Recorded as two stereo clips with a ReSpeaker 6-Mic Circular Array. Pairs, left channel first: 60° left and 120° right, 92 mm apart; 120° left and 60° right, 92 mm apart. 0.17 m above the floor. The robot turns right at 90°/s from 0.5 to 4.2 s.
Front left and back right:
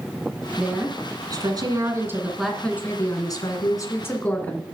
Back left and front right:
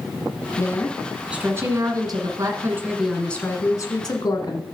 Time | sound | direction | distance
0.6 | a woman speaking | 160° left | 1.6 m